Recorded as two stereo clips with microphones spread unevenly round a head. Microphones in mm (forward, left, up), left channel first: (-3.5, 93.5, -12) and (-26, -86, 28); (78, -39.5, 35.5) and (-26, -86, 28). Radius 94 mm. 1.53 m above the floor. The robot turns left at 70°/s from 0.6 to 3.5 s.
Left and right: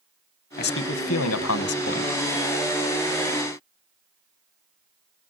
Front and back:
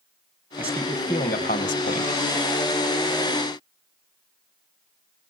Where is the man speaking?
125° left, 1.3 m; by 2.2 s 10° left, 1.3 m.